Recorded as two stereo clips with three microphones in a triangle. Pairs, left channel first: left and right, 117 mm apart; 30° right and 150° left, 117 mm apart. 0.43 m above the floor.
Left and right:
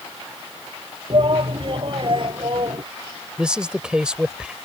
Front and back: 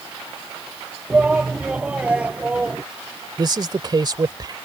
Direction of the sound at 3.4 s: 170° right.